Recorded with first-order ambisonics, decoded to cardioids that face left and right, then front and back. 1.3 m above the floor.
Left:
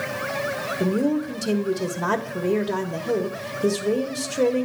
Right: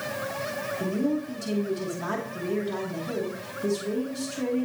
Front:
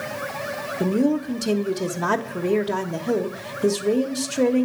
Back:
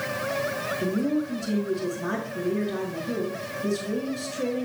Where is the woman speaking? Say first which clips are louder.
Left 6 dB, front 8 dB; 30° left, 1.2 m.